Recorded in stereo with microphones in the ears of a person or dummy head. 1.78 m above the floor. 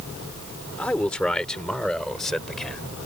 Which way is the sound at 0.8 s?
5° left (ahead or behind).